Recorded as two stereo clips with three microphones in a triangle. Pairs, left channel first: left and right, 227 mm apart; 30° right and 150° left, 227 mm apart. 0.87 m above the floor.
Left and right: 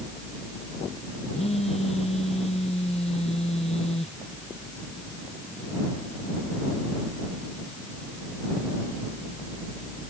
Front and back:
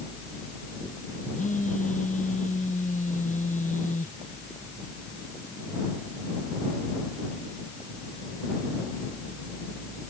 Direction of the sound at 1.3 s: 25° left.